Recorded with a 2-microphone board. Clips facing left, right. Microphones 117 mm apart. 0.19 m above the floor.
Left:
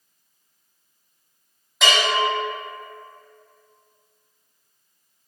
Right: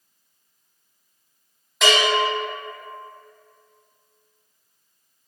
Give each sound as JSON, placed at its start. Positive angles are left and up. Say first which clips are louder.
{"t": 1.8, "sound": "a bell", "louder": "right 2 dB", "side_deg": 0, "distance_m": 1.0}